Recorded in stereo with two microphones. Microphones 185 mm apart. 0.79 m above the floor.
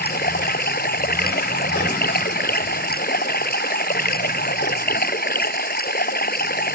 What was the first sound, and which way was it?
Running water, 55° left (ahead or behind).